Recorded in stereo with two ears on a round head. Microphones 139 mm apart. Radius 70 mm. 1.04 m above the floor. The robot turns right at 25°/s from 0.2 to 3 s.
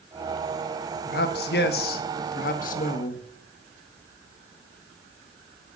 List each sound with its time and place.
1.1 s a man speaking: 75° left, 1.5 m; by 3.2 s 120° left, 1.5 m